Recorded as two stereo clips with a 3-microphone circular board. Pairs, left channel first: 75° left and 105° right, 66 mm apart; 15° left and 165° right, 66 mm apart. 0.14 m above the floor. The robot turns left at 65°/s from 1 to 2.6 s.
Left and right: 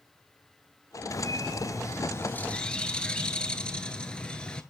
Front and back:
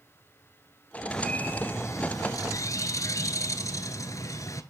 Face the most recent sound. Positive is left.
turn(degrees=0)